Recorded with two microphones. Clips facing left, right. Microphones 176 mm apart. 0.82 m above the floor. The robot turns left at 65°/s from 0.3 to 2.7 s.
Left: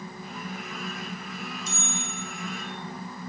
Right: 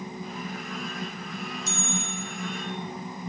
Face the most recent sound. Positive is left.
turn(degrees=-150)